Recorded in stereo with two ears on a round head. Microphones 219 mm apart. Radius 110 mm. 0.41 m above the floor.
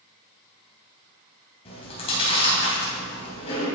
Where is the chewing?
25° left (ahead or behind), 3 m.